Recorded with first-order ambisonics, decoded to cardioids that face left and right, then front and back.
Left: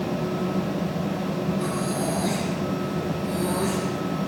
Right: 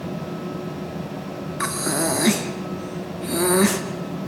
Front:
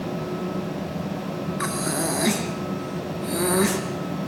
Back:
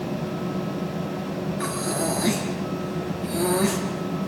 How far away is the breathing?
About 3 m.